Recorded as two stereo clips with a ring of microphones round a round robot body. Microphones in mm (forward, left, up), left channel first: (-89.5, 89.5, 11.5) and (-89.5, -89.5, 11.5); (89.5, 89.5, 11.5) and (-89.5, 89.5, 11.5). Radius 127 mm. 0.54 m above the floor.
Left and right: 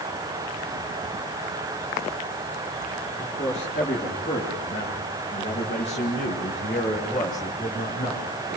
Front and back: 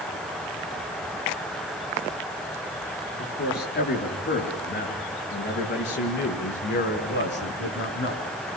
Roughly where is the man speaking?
Ahead left.